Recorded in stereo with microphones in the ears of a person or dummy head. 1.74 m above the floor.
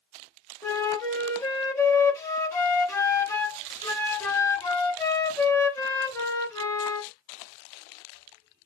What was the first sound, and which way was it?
A flute, 15° left (ahead or behind).